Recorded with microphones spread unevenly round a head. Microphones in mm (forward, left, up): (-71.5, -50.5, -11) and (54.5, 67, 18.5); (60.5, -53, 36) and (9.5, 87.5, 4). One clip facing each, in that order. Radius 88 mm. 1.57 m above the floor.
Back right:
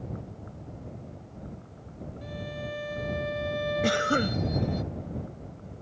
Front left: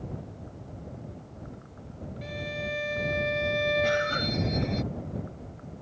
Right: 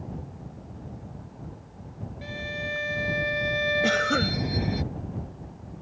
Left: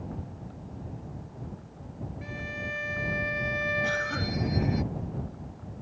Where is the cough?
105° right.